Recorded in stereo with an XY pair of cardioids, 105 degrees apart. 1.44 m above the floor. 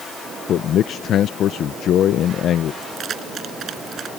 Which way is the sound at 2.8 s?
50° right.